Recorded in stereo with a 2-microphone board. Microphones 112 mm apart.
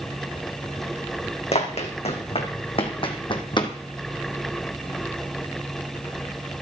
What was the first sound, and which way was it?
Running footsteps, 65° left (ahead or behind).